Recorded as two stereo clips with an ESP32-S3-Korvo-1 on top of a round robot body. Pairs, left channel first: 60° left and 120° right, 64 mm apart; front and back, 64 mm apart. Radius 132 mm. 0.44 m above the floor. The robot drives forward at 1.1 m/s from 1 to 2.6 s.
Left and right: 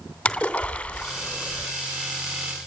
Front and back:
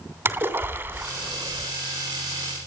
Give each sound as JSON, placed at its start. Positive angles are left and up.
{"t": 0.2, "sound": "a splash", "azimuth_deg": 130, "distance_m": 2.0}